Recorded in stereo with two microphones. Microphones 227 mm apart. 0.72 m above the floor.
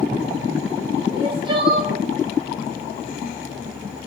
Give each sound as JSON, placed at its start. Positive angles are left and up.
{"t": 1.1, "sound": "crying", "side_deg": -20, "distance_m": 1.0}